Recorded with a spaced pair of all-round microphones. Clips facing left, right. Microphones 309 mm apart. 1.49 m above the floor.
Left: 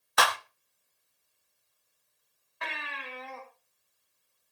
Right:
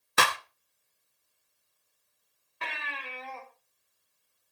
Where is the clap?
30° right (ahead or behind), 0.6 m.